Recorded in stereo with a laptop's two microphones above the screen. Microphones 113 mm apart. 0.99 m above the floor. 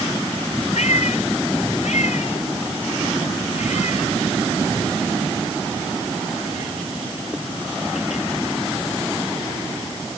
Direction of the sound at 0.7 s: 85° left.